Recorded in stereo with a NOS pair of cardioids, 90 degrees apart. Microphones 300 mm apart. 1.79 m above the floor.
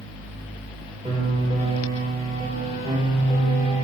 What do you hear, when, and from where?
1.1 s a piano: 20° right, 2.5 m